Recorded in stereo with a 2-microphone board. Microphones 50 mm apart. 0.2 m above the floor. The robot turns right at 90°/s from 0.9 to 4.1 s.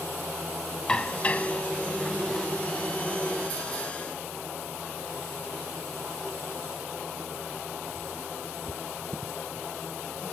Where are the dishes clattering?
15° left (ahead or behind), 0.7 m; by 2.5 s centre (ahead or behind), 0.7 m.